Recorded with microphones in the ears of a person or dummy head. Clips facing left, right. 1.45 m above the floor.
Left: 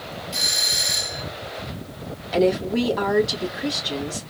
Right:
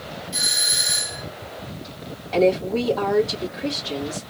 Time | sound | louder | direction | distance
0.3 | a doorbell | left 1 dB | 5° left (ahead or behind) | 3 m
2.3 | a woman speaking | right 1 dB | 20° left (ahead or behind) | 3 m